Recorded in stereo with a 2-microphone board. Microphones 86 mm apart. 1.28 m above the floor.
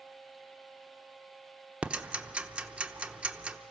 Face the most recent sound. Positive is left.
turn(degrees=-15)  # may be behind; listen again after turning